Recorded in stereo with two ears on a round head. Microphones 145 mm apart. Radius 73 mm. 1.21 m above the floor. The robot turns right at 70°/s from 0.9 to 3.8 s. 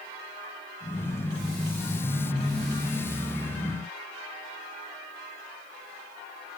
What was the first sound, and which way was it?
Only background noise.